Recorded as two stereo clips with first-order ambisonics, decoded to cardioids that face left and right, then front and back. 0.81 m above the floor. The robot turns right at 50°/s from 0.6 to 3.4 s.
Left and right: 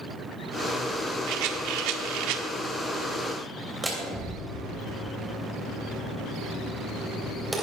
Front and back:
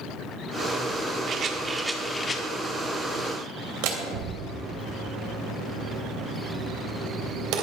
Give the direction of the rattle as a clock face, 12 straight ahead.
4 o'clock.